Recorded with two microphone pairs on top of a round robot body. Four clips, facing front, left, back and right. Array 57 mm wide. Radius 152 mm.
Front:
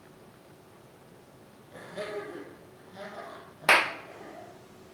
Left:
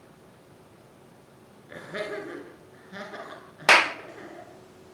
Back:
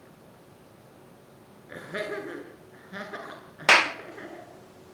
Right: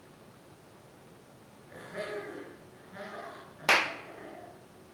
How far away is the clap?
About 1.1 m.